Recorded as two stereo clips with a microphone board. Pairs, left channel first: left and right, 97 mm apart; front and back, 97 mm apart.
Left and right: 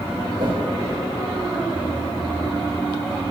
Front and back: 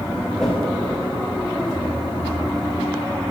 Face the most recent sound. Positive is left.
turn(degrees=-85)